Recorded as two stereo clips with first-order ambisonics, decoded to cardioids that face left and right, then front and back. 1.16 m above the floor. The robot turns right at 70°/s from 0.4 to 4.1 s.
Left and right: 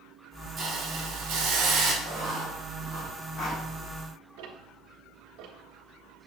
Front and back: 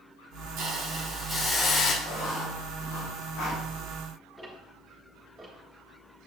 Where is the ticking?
100° right, 1.7 m.